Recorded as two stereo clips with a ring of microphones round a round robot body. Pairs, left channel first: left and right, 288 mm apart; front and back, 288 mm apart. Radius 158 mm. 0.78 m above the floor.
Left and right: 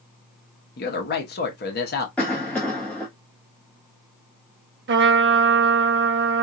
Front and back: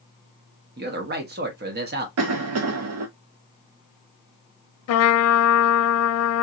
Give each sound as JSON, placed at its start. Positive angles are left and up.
{"t": 0.8, "sound": "a man speaking", "azimuth_deg": 135, "distance_m": 0.8}
{"t": 2.2, "sound": "a cough", "azimuth_deg": 175, "distance_m": 0.5}
{"t": 4.9, "sound": "a trumpet", "azimuth_deg": -40, "distance_m": 0.6}